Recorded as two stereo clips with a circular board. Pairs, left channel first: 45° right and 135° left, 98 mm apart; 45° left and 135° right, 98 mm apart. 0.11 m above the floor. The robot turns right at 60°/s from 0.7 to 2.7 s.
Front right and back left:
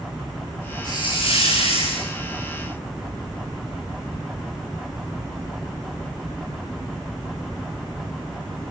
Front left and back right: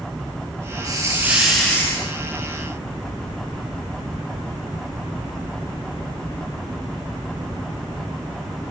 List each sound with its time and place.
0.8 s a hiss: 90° right, 5 m; by 2.1 s 15° right, 5 m